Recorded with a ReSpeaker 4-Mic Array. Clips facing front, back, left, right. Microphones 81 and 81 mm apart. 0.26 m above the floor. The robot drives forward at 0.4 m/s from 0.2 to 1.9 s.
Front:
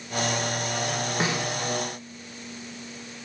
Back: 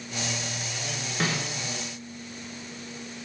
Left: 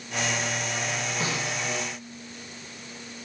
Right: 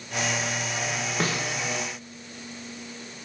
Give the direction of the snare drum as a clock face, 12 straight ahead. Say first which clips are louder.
Even, right 4 dB; 2 o'clock.